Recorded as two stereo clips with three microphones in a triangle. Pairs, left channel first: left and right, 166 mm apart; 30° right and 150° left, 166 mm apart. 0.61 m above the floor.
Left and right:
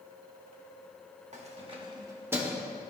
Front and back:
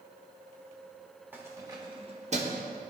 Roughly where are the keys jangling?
Behind right.